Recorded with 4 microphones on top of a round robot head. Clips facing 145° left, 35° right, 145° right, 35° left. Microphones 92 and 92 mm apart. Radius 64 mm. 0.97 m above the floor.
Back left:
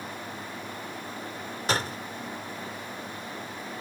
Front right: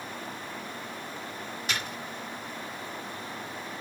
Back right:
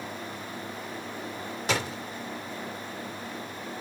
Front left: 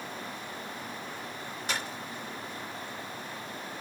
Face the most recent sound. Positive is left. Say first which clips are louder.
# back left 7 dB, back right 7 dB
turn(degrees=-160)